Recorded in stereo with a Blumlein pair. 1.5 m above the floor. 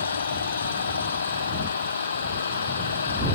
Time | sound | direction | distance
0.0 | an engine running | 70° left | ?